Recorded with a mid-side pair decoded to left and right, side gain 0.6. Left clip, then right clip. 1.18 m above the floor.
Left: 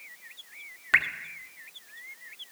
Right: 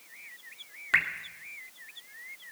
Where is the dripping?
15° left, 2 m.